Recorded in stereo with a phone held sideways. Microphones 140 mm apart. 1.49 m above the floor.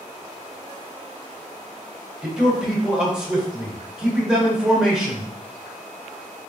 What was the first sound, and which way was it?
A man speaking, 5° right (ahead or behind).